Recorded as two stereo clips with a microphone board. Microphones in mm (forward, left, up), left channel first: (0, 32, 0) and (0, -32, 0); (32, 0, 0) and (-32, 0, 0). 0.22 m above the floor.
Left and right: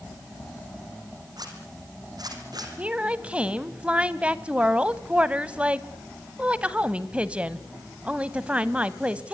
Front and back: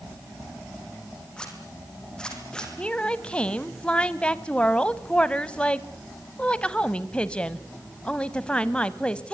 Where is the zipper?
80° right, 5 m.